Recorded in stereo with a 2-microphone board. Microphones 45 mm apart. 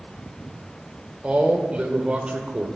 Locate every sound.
1.2 s a man speaking: 25° right (ahead or behind), 1.2 m